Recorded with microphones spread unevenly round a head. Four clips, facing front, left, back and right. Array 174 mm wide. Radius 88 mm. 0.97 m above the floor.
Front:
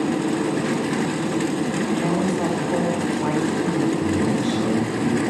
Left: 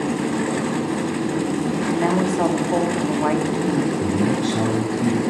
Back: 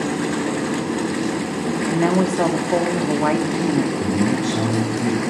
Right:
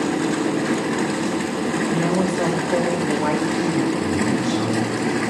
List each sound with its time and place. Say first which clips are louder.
1.9 s a woman speaking: left 2 dB, back 6 dB; 175° left, 2.5 m
4.0 s a man speaking: left 1 dB, back 1 dB; 115° left, 6 m